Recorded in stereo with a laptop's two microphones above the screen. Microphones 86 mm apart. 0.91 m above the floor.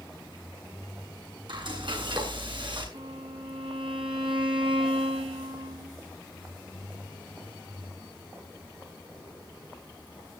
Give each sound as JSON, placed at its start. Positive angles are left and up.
{"t": 1.5, "sound": "frying", "side_deg": -65, "distance_m": 7.5}
{"t": 2.9, "sound": "a violin", "side_deg": -80, "distance_m": 5.0}